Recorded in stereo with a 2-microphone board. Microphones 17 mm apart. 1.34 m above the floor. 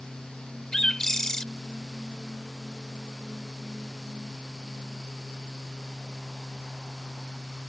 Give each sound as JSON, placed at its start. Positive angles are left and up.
{"t": 0.7, "sound": "a bird", "side_deg": 25}